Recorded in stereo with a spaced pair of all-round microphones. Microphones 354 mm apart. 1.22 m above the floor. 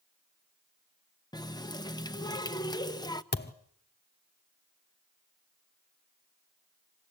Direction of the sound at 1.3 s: 10° left (ahead or behind).